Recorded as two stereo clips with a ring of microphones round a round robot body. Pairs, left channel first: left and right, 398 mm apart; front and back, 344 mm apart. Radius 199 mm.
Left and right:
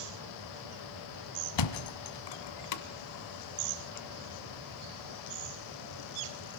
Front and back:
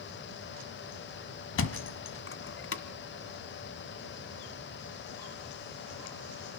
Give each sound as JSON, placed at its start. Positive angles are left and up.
{"t": 1.6, "sound": "a thud", "azimuth_deg": 55, "distance_m": 1.5}